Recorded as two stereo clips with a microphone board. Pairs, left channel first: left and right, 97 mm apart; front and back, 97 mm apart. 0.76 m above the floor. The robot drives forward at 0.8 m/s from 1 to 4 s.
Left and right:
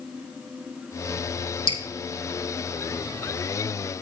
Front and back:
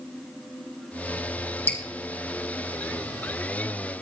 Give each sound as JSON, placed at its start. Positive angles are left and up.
{"t": 1.7, "sound": "dripping", "azimuth_deg": 70, "distance_m": 3.5}